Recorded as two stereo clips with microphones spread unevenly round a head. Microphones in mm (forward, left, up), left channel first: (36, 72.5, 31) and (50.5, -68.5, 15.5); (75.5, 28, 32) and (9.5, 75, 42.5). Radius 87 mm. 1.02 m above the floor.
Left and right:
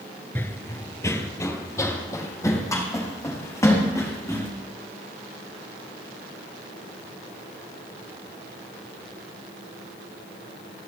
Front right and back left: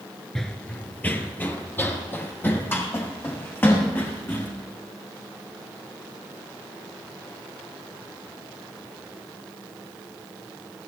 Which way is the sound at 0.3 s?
65° left.